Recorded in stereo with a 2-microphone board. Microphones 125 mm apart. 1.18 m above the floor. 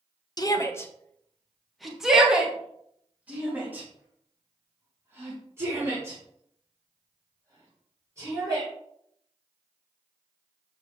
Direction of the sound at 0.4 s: 35° left (ahead or behind).